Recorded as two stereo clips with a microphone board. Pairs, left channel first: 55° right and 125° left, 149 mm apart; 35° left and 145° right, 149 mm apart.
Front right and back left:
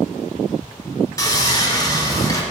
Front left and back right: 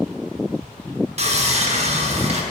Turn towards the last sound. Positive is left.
turn(degrees=-115)